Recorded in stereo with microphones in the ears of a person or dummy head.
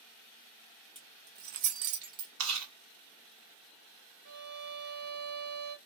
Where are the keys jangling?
25° right (ahead or behind), 1.1 m; by 2.3 s 40° right (ahead or behind), 1.1 m.